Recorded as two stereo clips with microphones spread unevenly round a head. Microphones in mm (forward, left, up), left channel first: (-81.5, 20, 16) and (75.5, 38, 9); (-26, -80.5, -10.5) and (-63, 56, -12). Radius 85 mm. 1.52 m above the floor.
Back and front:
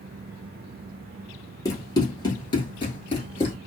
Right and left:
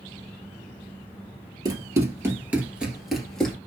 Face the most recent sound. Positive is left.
turn(degrees=-155)